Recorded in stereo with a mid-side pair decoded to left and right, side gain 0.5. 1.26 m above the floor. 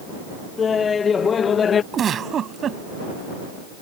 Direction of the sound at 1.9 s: 50° right.